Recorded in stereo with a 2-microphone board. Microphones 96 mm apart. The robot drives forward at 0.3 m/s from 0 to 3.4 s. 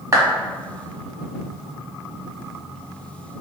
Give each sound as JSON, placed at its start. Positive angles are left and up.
{"t": 0.1, "sound": "a clap", "side_deg": -35, "distance_m": 1.2}